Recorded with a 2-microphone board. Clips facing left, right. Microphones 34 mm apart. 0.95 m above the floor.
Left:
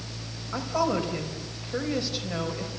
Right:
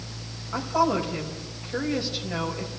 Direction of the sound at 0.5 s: Centre (ahead or behind).